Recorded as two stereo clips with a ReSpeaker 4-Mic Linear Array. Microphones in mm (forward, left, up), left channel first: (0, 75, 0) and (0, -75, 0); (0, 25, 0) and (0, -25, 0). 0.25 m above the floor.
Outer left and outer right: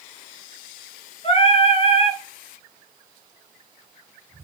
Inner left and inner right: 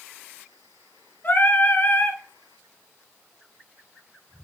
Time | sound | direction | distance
1.2 | singing | 45° left (ahead or behind) | 1.3 m